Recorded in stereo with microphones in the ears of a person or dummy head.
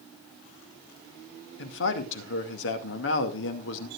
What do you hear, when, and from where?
1.6 s a man speaking: 70° left (ahead or behind), 2 m